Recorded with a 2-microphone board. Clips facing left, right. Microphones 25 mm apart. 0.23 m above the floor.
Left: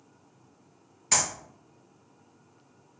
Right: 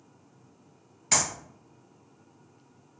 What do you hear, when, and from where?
1.1 s a clap: 5° right (ahead or behind), 1.8 m